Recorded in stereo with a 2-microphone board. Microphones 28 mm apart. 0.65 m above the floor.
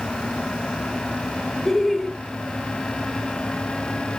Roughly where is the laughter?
Centre.